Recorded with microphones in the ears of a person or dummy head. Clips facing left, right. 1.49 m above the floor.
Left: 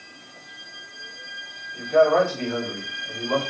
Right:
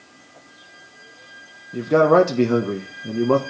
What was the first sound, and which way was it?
A man speaking, 80° right.